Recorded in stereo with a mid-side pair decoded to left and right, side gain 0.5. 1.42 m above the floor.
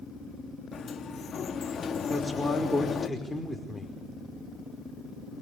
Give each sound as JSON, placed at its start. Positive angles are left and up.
{"t": 0.7, "sound": "a sliding door", "azimuth_deg": 40, "distance_m": 2.0}
{"t": 2.1, "sound": "a man speaking", "azimuth_deg": 5, "distance_m": 5.0}